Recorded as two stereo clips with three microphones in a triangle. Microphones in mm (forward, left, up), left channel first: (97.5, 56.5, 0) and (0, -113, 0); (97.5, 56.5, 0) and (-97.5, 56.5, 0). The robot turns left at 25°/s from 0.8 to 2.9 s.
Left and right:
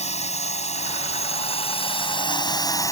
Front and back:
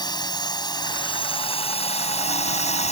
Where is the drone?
50° left; by 2.9 s straight ahead.